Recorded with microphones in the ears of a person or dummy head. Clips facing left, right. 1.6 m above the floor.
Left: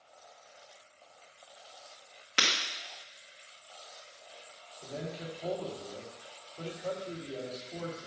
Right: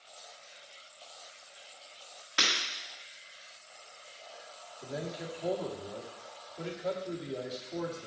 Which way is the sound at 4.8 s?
15° right (ahead or behind).